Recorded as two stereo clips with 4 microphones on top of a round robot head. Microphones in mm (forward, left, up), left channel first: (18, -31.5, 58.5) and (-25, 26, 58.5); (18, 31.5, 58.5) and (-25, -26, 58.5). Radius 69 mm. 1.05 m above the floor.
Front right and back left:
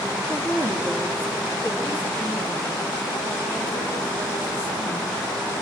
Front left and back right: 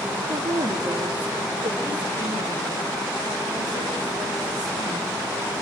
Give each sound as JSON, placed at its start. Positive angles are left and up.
{"t": 0.3, "sound": "a woman speaking", "azimuth_deg": -170, "distance_m": 2.5}